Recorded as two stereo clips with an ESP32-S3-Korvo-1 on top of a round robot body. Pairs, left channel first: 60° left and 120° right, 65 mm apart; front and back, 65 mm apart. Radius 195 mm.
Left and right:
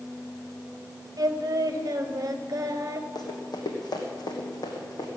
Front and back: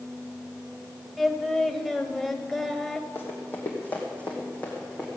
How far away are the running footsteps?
About 2 m.